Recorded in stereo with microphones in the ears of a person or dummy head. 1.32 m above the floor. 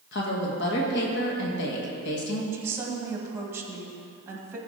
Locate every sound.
0.1 s a woman speaking: 65° left (ahead or behind), 1.6 m
2.5 s a woman speaking: 20° right (ahead or behind), 1.8 m